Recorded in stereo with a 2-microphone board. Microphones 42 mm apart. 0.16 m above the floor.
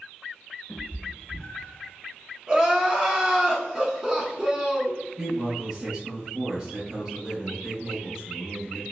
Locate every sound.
0.7 s a cat meowing: 55° left (ahead or behind), 0.9 m; by 1.9 s centre (ahead or behind), 0.9 m
2.5 s crying: 15° right (ahead or behind), 0.8 m
5.2 s a man speaking: 15° right (ahead or behind), 1.0 m